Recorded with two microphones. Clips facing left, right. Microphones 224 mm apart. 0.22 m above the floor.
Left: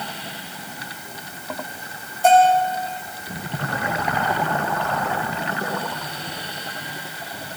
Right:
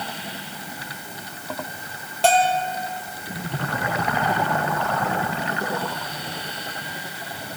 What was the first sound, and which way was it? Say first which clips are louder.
A bell: left 5 dB; 80° right.